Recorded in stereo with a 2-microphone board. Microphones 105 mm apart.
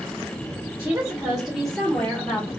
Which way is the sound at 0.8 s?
20° right (ahead or behind).